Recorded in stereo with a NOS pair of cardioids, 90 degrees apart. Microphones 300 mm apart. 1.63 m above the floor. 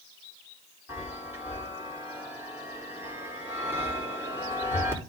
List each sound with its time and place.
0.9 s a chime: 5° right, 4 m